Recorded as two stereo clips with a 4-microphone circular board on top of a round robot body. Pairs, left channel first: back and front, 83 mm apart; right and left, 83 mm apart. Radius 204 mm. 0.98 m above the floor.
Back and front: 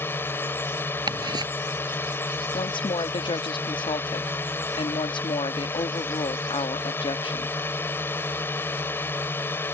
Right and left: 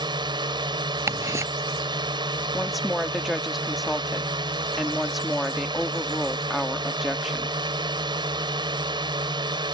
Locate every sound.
0.0 s a drone: 115° left
1.1 s ticking: 35° left
2.5 s a woman speaking: straight behind